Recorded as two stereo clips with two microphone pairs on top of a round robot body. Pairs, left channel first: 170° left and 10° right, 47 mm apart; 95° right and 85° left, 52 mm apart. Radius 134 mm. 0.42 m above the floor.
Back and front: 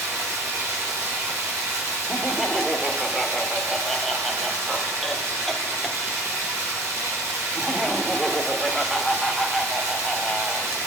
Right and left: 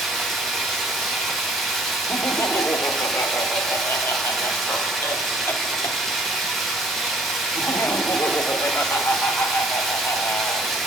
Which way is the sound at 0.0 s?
10° right.